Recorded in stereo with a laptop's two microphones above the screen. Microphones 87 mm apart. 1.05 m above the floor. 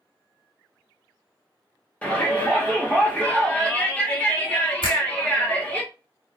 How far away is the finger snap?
About 1.7 m.